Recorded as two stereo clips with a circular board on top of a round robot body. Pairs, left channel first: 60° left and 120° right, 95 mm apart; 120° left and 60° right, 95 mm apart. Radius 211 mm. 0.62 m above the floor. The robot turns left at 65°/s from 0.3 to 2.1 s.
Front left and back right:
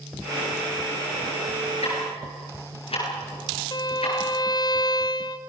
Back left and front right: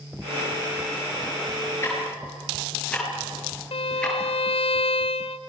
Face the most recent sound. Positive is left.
turn(degrees=105)